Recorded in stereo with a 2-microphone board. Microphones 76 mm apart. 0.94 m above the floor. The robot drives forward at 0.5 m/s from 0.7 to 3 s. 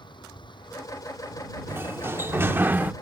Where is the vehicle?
85° left.